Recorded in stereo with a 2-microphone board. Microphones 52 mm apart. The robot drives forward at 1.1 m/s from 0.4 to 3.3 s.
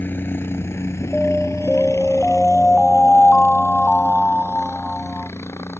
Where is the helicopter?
40° left (ahead or behind); by 5.8 s 60° left (ahead or behind).